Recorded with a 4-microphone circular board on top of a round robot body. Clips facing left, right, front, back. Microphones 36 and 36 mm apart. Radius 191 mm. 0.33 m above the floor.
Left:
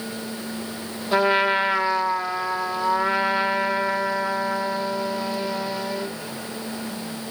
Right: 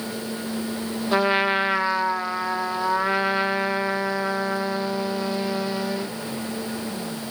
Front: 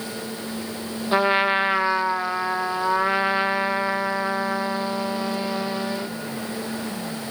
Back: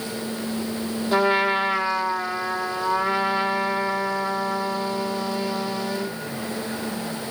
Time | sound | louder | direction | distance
1.1 | a trumpet | left 2 dB, front 1 dB | 10° right | 1.3 m